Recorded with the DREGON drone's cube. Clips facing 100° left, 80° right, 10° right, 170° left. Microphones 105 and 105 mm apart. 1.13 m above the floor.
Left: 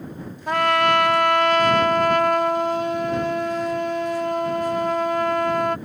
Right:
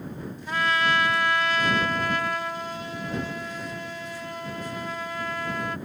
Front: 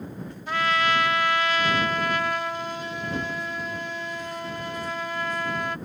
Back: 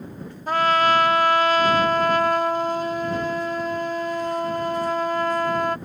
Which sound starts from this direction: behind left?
A trumpet, at 0.5 s.